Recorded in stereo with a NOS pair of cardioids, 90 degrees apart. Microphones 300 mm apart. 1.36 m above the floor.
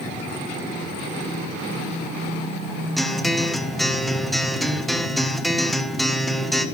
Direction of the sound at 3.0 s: Straight ahead.